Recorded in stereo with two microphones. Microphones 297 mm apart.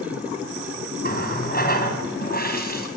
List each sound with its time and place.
1.0 s a running tap: 30° left (ahead or behind), 3.5 m